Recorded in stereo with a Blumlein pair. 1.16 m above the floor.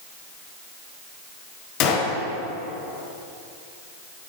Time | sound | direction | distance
1.8 | a gunshot | 40° left | 1.9 m